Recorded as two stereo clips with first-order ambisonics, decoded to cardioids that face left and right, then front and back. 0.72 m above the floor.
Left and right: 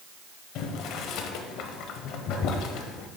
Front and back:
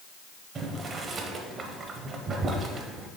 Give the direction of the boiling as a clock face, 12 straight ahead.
8 o'clock.